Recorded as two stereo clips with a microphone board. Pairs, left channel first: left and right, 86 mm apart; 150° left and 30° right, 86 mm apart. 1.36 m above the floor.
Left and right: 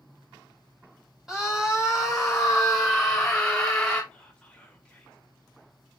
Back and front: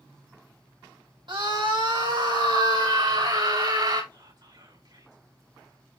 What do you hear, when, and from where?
1.3 s a scream: 5° right, 6 m; by 4.0 s 5° left, 6 m
4.1 s whispering: 10° left, 5.5 m